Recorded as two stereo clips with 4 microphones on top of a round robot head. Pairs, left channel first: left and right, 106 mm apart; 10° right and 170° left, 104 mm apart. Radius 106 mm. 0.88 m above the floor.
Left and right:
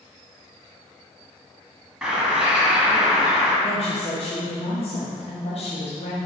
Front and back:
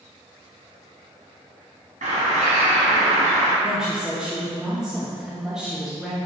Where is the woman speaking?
85° left, 1.4 m.